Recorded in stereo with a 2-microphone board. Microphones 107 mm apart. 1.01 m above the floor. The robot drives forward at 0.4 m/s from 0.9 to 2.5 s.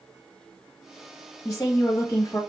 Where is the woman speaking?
20° left (ahead or behind), 1.0 m; by 2.4 s 15° left (ahead or behind), 1.3 m.